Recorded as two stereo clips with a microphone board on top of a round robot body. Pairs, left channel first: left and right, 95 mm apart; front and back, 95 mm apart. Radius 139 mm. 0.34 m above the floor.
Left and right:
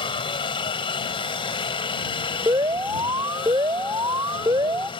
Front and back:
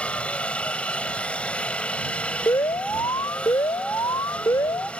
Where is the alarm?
50° right.